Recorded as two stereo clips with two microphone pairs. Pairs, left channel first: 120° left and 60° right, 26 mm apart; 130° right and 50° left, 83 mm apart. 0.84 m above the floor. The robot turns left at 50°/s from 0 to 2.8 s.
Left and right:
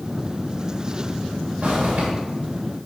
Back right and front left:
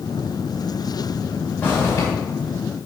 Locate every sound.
1.6 s a zipper: 60° right, 3 m; by 2.1 s 85° right, 3 m